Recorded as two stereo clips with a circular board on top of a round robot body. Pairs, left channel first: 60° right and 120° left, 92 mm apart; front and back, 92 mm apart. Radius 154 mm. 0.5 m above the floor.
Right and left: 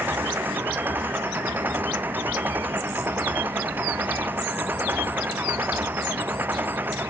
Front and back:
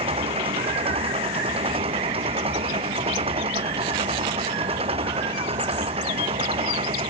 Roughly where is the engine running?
Behind.